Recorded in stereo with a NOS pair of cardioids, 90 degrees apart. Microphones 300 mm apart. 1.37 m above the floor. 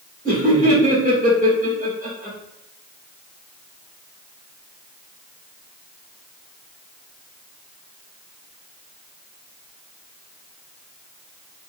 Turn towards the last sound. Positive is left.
turn(degrees=-25)